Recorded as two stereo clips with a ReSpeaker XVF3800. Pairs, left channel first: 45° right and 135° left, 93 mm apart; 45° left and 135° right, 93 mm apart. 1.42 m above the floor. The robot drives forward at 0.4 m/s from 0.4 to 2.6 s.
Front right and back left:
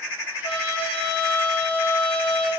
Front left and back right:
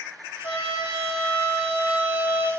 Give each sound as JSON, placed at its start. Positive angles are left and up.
{"t": 0.4, "sound": "a trumpet", "azimuth_deg": -30, "distance_m": 1.0}